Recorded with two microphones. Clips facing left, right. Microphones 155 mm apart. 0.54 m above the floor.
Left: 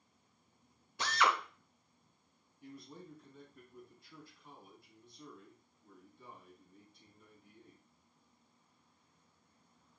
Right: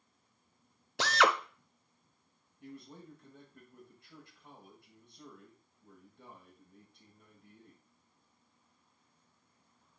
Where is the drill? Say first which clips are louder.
Right 4 dB; 85° right, 0.6 m.